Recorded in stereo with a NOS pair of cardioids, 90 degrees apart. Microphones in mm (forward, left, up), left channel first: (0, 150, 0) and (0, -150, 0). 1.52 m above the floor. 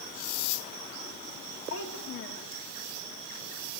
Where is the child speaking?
50° left, 2.5 m.